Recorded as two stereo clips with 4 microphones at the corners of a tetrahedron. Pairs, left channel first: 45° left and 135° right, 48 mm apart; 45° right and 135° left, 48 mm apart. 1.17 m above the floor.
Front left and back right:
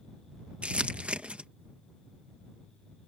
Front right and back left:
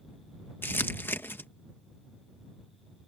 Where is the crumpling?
75° right.